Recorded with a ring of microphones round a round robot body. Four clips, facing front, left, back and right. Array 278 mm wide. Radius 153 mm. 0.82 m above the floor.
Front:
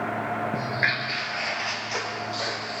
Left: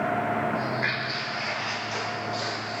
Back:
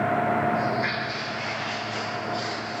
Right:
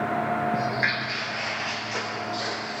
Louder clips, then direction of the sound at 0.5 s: Right 2 dB, back 2 dB; 45° right.